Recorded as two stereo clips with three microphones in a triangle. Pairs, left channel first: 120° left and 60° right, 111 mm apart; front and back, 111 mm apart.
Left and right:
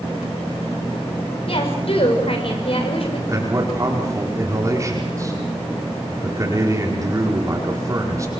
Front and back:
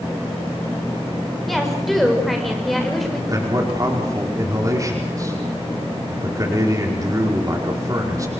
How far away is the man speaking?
About 5 m.